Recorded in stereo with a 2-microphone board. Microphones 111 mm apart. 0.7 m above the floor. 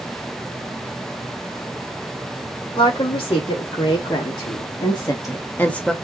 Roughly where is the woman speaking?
Left.